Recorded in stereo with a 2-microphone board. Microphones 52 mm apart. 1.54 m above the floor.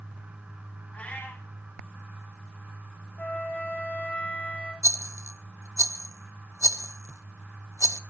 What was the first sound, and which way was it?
A cat meowing, 35° left (ahead or behind).